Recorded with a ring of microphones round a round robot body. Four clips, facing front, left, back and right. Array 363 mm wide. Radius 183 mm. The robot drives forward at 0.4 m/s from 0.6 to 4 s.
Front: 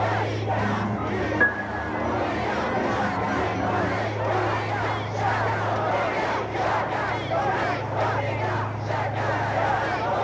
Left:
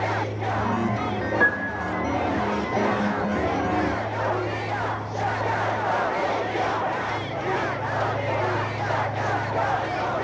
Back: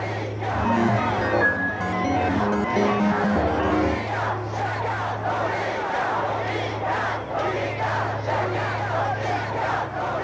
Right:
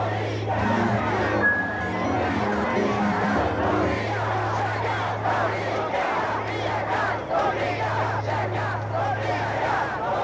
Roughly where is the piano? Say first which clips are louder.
Even, back 1 dB; ahead left.